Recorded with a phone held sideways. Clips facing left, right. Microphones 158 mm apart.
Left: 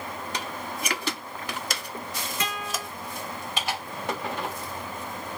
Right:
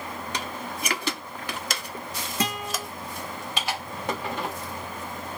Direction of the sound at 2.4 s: 35° right (ahead or behind).